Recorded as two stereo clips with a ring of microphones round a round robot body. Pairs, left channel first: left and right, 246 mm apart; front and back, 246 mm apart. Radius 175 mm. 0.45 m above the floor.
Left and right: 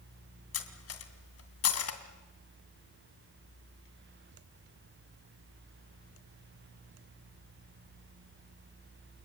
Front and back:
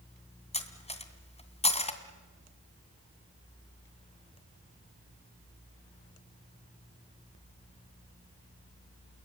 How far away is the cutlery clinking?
About 2.5 m.